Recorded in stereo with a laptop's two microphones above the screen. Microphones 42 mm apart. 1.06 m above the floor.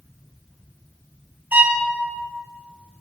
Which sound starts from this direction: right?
A violin, at 1.5 s.